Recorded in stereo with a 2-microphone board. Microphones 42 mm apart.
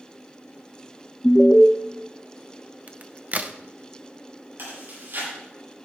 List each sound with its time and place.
1.2 s an alarm: 20° left (ahead or behind), 0.6 m
2.9 s a crack: 35° right (ahead or behind), 0.6 m
4.6 s chewing: 60° right (ahead or behind), 7 m